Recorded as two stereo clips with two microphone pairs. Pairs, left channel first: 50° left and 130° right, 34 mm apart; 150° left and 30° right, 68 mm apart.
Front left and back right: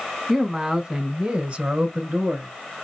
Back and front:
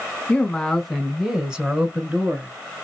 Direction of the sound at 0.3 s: 175° left.